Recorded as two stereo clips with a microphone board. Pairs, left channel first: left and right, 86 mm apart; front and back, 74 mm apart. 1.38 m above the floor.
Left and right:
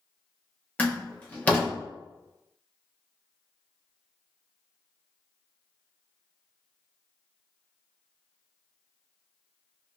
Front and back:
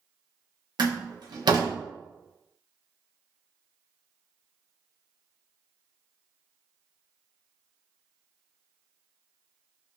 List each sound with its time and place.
0.8 s a door slam: 165° left, 1.0 m